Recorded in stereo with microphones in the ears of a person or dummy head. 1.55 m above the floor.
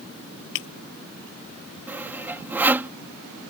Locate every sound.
0.6 s breaking glass: 70° left (ahead or behind)
1.9 s sawing: 10° right (ahead or behind)